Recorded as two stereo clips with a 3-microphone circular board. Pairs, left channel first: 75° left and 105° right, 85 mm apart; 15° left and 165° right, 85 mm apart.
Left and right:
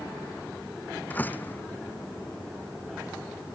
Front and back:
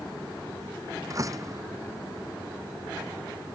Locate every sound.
1.1 s a door slam: 145° left